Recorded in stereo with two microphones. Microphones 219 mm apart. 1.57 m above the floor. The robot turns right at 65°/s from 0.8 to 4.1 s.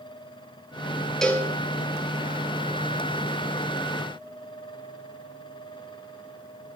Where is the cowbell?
5° left (ahead or behind), 1.5 m; by 1.5 s 20° left (ahead or behind), 1.5 m.